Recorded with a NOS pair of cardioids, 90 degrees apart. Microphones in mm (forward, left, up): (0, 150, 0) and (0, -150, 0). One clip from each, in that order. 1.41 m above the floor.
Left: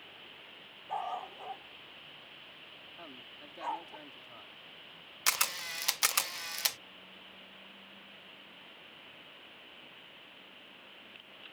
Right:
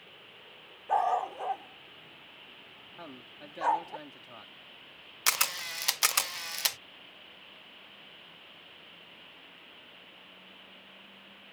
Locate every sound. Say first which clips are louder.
0.9 s a dog barking: right 10 dB; 65° right
3.0 s a man speaking: right 4 dB; 40° right
5.3 s a camera shutter: right 2 dB; 10° right